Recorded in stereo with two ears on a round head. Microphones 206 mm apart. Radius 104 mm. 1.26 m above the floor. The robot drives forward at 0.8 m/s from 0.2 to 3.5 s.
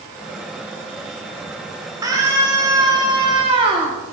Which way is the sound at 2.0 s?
15° right (ahead or behind).